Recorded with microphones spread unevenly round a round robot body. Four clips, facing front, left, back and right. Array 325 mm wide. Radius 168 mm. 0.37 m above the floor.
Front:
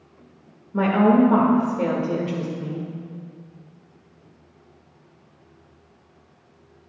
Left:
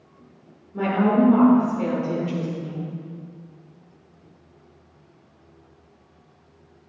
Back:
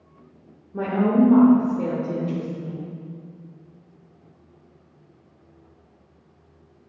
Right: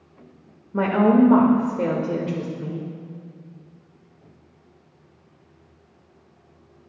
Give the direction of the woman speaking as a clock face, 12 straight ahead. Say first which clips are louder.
Right 3 dB, front 3 dB; 3 o'clock.